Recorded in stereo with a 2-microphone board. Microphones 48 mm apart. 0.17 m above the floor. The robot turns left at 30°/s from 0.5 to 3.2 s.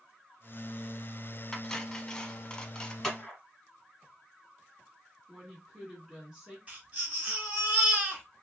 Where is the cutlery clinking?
10° left (ahead or behind), 0.6 m; by 2.9 s 20° left (ahead or behind), 0.6 m.